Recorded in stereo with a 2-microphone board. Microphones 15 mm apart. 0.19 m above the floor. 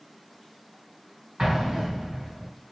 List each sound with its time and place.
1.4 s an explosion: 45° right (ahead or behind), 2 m